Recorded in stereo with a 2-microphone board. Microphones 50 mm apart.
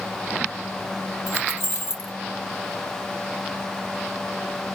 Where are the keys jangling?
50° left (ahead or behind), 3.5 m.